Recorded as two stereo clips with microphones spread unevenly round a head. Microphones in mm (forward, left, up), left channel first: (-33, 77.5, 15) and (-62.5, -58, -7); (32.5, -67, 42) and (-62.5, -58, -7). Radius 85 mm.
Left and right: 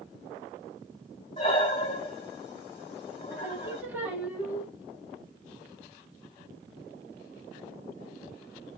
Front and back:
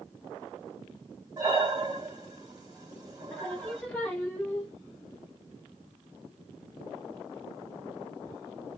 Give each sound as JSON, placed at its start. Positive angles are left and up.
{"t": 1.4, "sound": "breathing", "azimuth_deg": 75, "distance_m": 1.9}
{"t": 3.3, "sound": "singing", "azimuth_deg": -20, "distance_m": 1.1}